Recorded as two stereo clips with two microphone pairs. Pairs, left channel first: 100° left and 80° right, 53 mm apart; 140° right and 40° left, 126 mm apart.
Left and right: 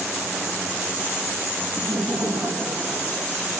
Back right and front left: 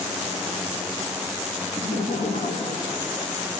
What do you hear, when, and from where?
1.8 s laughter: 110° right, 4 m; by 3.5 s 95° right, 6 m